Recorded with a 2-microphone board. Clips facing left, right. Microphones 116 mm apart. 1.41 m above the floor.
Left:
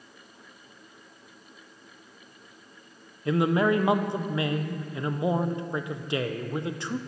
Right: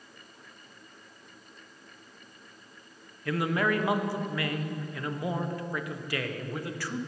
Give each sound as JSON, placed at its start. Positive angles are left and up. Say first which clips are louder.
{"t": 3.2, "sound": "a man speaking", "louder": "left 5 dB", "side_deg": 20, "distance_m": 0.7}